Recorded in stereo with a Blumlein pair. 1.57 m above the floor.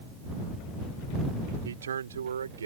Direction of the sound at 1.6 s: 65° right.